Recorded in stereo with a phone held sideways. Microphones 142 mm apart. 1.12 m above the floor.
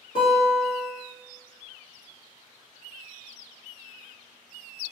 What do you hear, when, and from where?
0.1 s a guitar: 75° left (ahead or behind), 1.7 m